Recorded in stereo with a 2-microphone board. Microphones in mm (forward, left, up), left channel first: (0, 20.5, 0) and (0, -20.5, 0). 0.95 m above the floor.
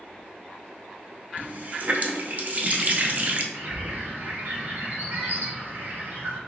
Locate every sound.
1.4 s a running tap: 40° right (ahead or behind), 0.6 m
3.5 s a bird: 55° right (ahead or behind), 1.5 m